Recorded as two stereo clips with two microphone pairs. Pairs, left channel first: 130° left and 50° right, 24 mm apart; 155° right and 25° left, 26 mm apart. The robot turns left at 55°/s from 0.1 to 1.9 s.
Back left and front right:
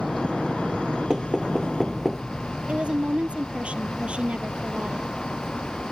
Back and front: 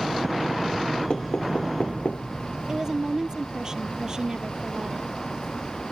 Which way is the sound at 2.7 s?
35° right.